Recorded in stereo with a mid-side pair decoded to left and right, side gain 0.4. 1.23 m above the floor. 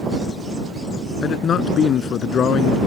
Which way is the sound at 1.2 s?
65° left.